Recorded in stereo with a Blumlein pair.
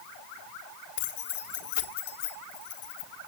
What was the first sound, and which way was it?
Keys jangling, 50° left.